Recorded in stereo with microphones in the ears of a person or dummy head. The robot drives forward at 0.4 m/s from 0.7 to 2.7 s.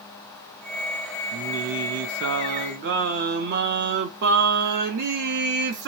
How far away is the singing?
About 0.5 m.